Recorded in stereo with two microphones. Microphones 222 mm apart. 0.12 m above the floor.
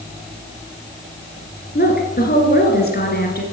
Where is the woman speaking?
45° left (ahead or behind), 2 m.